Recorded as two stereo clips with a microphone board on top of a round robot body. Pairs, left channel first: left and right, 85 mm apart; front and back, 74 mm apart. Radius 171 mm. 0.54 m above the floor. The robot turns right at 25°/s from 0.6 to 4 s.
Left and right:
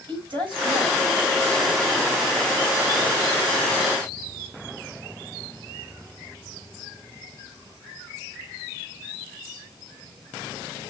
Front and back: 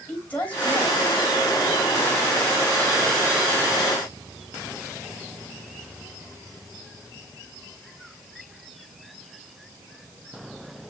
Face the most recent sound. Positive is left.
turn(degrees=15)